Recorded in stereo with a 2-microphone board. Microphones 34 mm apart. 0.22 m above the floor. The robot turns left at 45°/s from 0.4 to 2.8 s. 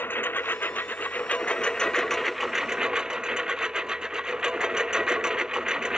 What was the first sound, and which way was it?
A lawn mower, 85° left.